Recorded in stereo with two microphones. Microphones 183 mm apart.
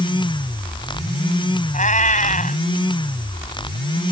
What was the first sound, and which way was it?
A cat meowing, 45° left (ahead or behind).